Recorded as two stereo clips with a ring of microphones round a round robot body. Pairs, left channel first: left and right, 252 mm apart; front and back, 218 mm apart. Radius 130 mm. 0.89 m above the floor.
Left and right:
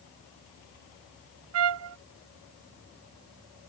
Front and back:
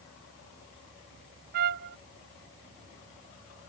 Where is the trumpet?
125° right.